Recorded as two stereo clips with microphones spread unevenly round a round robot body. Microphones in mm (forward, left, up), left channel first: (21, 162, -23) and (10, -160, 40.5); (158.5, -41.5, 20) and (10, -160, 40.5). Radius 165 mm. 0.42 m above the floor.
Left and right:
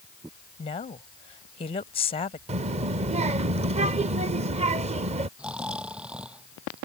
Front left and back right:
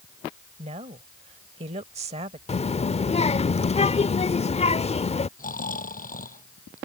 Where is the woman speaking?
155° left.